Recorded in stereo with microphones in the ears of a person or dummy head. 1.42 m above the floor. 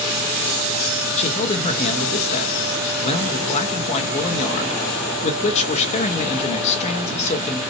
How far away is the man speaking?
About 1.6 m.